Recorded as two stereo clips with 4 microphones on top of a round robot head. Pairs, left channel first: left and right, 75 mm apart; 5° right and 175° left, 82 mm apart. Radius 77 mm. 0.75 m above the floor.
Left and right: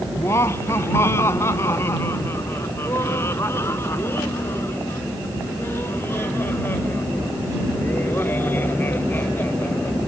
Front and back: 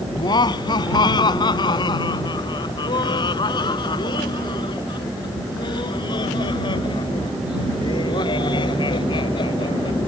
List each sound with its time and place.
0.1 s laughter: 25° left; by 10.0 s 20° left